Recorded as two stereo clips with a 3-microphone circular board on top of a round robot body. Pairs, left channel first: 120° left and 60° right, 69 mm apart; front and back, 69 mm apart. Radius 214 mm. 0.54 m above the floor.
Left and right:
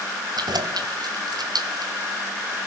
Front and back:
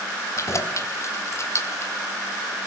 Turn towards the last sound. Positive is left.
turn(degrees=-45)